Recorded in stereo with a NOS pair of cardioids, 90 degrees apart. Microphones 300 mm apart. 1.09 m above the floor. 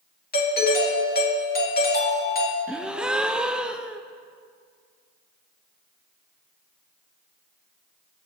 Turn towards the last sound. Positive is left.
turn(degrees=-5)